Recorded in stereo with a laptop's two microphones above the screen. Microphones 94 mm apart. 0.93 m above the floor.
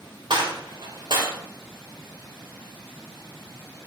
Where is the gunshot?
65° right (ahead or behind), 4 m.